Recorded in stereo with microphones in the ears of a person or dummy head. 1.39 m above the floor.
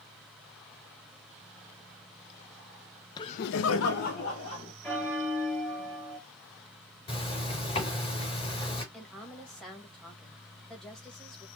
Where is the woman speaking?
5° left (ahead or behind), 1.7 m.